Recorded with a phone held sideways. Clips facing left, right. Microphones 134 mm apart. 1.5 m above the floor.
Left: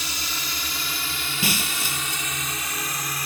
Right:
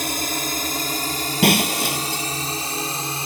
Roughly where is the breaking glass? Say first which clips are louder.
Right 11 dB; right.